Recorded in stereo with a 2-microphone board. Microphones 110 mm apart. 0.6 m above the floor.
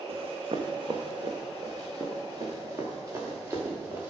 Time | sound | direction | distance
0.1 | running footsteps | 60° right (ahead or behind) | 1.5 m